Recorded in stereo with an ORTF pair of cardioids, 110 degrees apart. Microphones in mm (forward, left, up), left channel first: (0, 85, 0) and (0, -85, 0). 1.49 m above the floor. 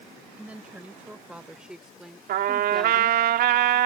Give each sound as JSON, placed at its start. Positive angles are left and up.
{"t": 0.4, "sound": "a woman speaking", "azimuth_deg": -10}
{"t": 2.3, "sound": "a trumpet", "azimuth_deg": -70}